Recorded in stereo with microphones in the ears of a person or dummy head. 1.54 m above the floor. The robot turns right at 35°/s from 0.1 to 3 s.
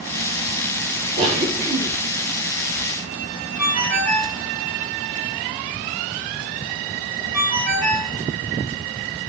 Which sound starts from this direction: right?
A cough, at 1.2 s.